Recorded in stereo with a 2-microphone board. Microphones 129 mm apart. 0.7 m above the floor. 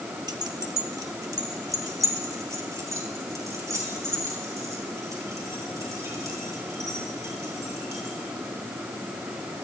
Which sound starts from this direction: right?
Keys jangling, at 0.3 s.